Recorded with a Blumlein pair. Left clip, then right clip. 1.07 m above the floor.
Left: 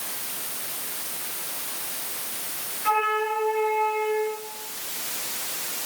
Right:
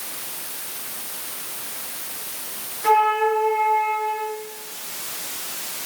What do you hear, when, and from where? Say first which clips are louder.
2.8 s a flute: right 6 dB; 55° right, 8 m